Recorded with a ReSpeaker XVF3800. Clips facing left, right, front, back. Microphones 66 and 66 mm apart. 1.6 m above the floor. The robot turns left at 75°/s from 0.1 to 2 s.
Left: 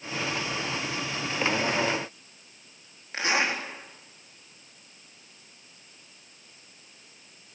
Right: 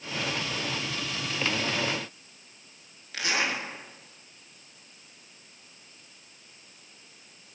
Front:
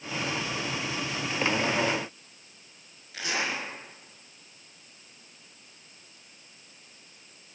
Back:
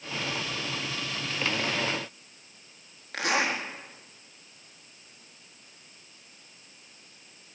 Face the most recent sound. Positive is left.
turn(degrees=150)